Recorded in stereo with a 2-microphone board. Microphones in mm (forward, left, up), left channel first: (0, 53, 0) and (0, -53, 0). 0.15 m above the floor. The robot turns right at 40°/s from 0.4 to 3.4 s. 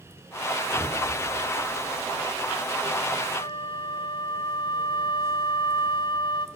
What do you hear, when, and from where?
0.6 s breathing: 10° right (ahead or behind), 5 m; by 1.1 s 5° left (ahead or behind), 5 m
3.3 s a flute: 45° left (ahead or behind), 1.0 m